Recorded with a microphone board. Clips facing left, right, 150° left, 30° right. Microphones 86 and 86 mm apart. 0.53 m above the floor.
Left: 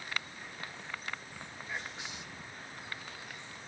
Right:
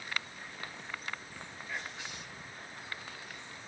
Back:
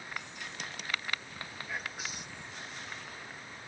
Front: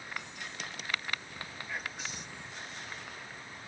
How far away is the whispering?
About 0.7 m.